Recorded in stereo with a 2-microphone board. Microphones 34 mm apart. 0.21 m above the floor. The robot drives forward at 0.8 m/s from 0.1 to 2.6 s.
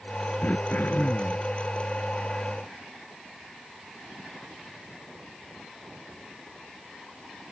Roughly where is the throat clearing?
Left.